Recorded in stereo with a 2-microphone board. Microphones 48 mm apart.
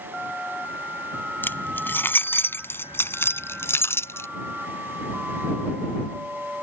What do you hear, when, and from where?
1.4 s keys jangling: 45° left (ahead or behind); by 4.3 s 65° left (ahead or behind)